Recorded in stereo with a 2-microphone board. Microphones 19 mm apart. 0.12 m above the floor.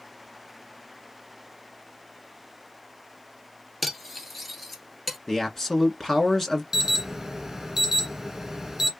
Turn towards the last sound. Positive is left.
turn(degrees=-15)  # may be behind; listen again after turning